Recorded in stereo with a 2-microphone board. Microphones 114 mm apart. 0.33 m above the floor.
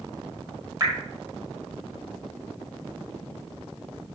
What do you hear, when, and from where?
0.8 s dripping: 30° right (ahead or behind), 1.7 m